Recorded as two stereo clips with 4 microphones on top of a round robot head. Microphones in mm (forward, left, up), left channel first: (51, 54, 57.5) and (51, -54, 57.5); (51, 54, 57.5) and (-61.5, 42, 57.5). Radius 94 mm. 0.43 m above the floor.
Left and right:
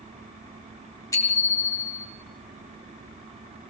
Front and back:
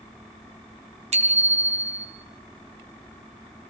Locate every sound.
1.1 s a bicycle bell: 160° left, 3.5 m